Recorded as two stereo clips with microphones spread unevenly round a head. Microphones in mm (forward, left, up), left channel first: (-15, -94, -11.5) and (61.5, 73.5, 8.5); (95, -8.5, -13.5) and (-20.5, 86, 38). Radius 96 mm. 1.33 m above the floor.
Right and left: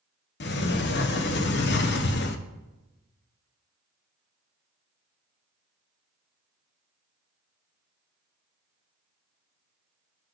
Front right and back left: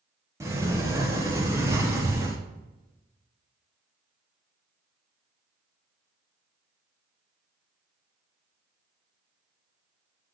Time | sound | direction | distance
0.4 | a sliding door | 135° right | 0.7 m